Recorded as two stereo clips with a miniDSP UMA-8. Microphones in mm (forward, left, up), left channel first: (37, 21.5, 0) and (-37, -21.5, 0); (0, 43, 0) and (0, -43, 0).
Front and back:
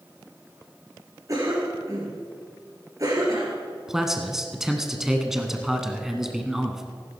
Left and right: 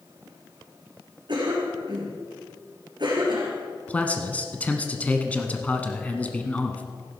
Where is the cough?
110° right, 2.5 m.